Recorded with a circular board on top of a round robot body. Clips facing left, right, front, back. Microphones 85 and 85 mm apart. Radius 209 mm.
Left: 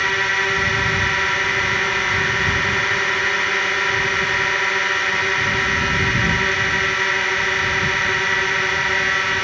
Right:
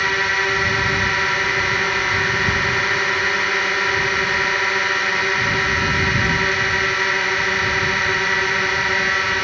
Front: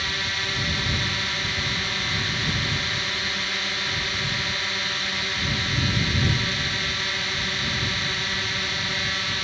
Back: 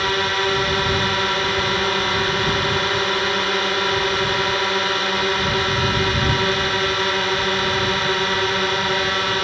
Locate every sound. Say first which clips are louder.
0.0 s a drone: even, back 10 dB; 175° right